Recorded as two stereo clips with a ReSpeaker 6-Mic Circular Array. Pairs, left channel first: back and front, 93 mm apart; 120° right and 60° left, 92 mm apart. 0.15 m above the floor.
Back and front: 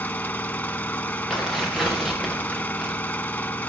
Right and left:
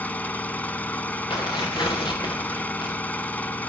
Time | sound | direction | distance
0.0 | an engine running | 150° right | 0.8 m
1.3 | tearing paper | 90° right | 4.5 m